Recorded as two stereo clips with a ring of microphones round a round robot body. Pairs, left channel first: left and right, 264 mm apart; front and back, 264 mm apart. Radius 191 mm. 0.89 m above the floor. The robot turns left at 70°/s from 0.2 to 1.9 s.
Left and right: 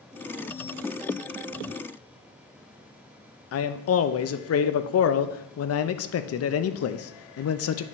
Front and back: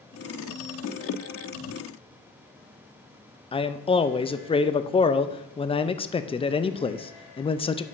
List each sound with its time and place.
3.5 s a man speaking: 70° left, 0.6 m